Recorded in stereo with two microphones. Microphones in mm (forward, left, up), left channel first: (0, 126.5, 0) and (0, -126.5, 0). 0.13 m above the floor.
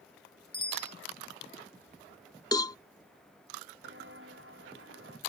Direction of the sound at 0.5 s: 40° left (ahead or behind).